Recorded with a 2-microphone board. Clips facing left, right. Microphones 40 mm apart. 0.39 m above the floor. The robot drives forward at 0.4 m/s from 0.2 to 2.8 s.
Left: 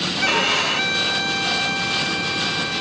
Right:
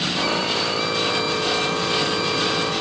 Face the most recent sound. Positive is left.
turn(degrees=35)  # may be behind; listen again after turning